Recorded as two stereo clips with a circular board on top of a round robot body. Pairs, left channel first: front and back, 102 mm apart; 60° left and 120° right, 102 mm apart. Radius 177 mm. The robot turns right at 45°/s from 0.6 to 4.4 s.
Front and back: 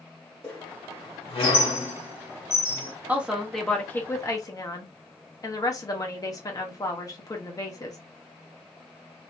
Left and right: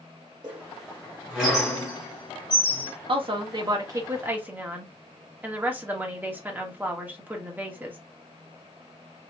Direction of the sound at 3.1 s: 110° right.